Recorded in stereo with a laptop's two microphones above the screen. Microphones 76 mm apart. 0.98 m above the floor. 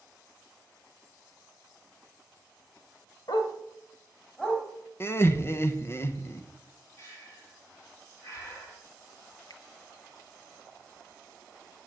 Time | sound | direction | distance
3.3 | a dog barking | 65° left (ahead or behind) | 1.5 m
5.0 | laughter | 30° left (ahead or behind) | 0.9 m
7.0 | breathing | 40° left (ahead or behind) | 3 m
9.5 | a finger snap | 55° left (ahead or behind) | 0.9 m